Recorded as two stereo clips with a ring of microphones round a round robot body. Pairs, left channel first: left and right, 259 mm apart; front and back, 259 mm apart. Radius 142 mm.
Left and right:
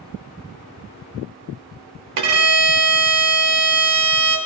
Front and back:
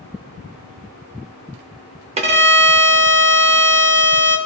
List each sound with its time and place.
2.2 s a violin: 115° right, 0.7 m